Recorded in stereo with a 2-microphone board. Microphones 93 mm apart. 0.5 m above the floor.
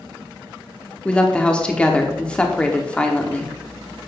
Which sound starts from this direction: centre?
A woman speaking, at 1.1 s.